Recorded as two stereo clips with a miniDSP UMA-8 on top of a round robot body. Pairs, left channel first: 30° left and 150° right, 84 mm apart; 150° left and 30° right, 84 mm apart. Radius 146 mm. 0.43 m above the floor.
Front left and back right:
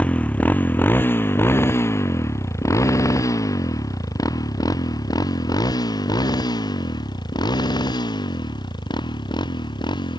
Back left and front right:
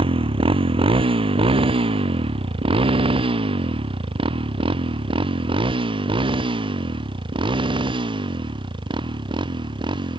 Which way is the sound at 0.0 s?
45° right.